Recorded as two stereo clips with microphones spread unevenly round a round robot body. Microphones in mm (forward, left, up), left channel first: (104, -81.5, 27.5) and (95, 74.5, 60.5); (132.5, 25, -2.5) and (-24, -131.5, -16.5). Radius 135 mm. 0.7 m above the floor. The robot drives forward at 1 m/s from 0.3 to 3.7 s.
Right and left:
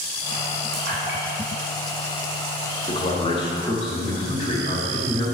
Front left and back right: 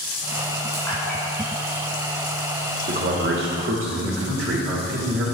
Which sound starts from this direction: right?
A man speaking, at 2.9 s.